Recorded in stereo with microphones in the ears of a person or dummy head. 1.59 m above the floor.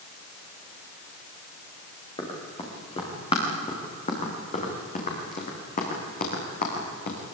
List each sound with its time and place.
2.2 s running footsteps: 25° left (ahead or behind), 7 m; by 7.2 s 45° left (ahead or behind), 6.5 m